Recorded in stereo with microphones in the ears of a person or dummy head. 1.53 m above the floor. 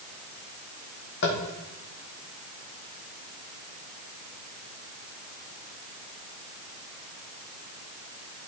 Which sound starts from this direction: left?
Tapping, at 1.2 s.